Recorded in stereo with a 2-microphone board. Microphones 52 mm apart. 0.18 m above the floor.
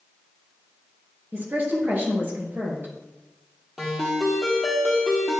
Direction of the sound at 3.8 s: Centre (ahead or behind).